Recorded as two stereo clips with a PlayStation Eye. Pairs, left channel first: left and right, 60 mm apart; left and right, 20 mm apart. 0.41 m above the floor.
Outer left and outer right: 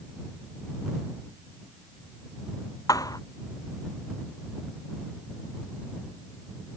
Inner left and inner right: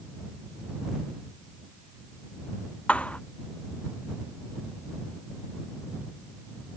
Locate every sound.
2.9 s a thud: 80° left